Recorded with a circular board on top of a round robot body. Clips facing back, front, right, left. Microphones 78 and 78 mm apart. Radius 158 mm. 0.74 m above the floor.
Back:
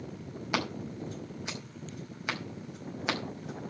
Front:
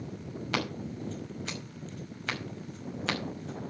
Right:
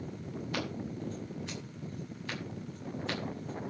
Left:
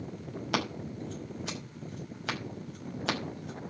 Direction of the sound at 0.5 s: 105° left.